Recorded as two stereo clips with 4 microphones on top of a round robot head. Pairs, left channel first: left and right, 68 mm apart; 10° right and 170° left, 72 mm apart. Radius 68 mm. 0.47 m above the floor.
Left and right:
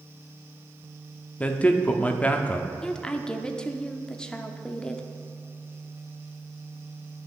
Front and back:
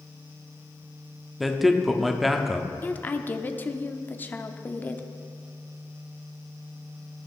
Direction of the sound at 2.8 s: 25° left.